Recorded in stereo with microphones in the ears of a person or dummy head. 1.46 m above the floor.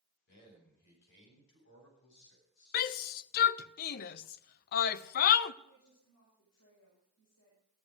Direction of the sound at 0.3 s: 60° left (ahead or behind).